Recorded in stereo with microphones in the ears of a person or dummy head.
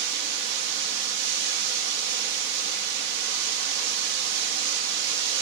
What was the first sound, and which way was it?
Running water, 60° right (ahead or behind).